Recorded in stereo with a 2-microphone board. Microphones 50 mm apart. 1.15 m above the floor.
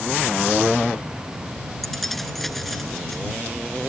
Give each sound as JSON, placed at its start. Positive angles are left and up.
{"t": 1.8, "sound": "keys jangling", "side_deg": 5}